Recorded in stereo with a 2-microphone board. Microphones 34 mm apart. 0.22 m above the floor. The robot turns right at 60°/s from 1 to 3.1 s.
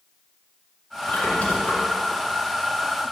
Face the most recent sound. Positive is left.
turn(degrees=-125)